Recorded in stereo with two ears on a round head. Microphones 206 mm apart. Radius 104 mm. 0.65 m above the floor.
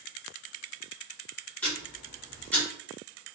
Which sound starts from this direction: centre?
Ticking, at 1.6 s.